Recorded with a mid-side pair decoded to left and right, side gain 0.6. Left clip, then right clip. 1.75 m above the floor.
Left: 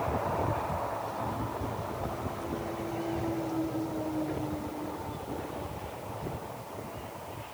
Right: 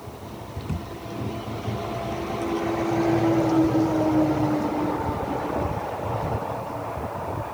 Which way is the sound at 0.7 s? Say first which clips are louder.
Left 2 dB; 45° right.